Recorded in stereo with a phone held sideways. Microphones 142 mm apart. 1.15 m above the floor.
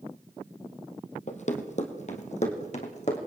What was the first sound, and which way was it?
Running footsteps, 55° left (ahead or behind).